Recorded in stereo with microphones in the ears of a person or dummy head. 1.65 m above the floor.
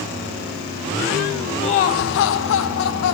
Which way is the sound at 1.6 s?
30° left (ahead or behind).